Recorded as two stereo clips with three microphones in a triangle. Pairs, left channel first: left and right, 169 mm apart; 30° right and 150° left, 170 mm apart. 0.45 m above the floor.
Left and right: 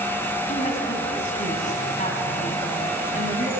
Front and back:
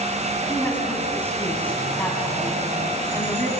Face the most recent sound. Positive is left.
turn(degrees=50)